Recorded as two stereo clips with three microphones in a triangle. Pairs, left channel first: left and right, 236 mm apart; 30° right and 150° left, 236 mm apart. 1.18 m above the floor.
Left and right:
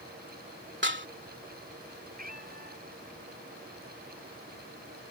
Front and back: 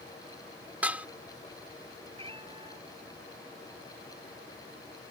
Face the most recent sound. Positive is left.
turn(degrees=-140)